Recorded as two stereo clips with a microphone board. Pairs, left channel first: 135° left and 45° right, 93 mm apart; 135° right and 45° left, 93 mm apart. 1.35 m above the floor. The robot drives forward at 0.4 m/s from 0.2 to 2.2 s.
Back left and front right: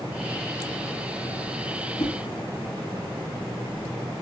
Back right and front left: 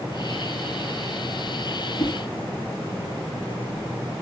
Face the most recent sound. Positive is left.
turn(degrees=150)